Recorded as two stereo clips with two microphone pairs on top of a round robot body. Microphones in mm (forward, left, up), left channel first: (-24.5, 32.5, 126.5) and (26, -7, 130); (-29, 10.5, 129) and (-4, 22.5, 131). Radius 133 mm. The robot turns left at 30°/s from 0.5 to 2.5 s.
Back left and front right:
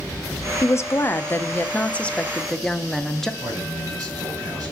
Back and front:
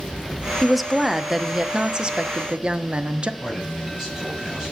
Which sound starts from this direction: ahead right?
A man speaking, at 3.4 s.